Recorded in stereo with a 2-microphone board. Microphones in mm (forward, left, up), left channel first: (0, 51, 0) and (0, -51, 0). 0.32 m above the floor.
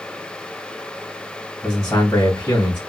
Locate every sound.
1.6 s a man speaking: 25° left (ahead or behind), 1.7 m